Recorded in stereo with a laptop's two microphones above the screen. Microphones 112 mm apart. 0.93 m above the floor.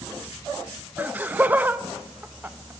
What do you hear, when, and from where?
1.0 s laughter: 15° right (ahead or behind), 0.6 m